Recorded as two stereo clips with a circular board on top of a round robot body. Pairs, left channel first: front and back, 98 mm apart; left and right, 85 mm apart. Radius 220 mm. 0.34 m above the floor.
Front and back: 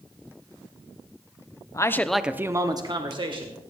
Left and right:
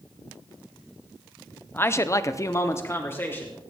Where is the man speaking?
35° left, 1.2 m; by 3.6 s 155° left, 2.5 m.